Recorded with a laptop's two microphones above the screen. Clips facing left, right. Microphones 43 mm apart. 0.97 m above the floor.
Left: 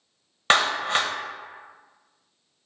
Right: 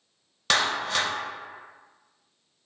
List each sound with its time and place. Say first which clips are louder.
0.5 s a clap: left 4 dB; 35° left (ahead or behind), 0.6 m